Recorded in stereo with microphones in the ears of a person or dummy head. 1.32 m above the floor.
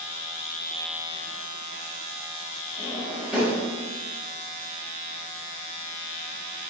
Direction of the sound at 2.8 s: Centre (ahead or behind).